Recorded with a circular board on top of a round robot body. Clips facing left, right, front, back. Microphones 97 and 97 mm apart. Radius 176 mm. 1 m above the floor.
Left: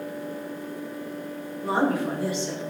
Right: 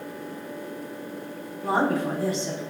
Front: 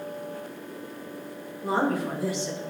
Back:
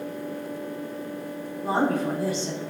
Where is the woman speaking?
140° right, 3.5 m.